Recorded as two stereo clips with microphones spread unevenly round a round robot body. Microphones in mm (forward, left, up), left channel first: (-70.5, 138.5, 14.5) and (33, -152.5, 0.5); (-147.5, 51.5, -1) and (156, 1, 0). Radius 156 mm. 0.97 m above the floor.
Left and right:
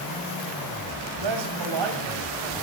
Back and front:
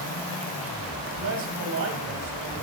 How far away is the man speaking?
About 6 m.